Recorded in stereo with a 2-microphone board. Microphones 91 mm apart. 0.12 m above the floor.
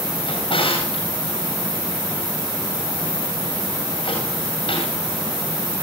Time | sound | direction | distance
0.3 | a drawer | 70° left (ahead or behind) | 8.5 m